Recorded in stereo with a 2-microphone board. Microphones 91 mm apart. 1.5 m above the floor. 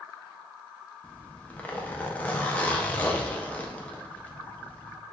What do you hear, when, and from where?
1.0 s a zipper: 15° left (ahead or behind), 0.6 m